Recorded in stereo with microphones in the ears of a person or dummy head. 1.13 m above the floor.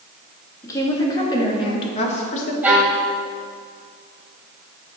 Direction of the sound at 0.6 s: 15° left (ahead or behind).